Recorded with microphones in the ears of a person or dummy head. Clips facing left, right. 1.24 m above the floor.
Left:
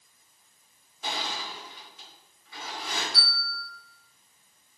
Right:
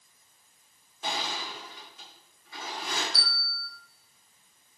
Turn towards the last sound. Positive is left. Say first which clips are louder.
# left 2 dB
turn(degrees=-80)